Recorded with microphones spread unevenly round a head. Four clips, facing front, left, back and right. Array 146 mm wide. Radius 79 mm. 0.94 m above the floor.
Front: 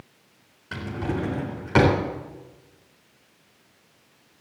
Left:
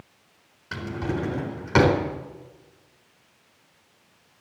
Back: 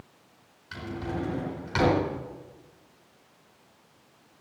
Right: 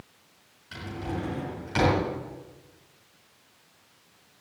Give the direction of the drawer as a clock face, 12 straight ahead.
11 o'clock.